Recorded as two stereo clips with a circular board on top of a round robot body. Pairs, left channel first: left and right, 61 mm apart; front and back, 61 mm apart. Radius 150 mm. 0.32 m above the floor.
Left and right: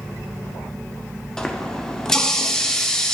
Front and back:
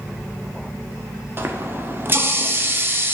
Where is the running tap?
165° left, 0.6 m.